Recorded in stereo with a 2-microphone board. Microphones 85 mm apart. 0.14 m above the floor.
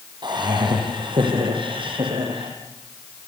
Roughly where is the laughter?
Right.